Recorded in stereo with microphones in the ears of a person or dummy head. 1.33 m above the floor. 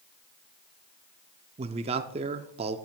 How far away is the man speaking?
About 0.5 m.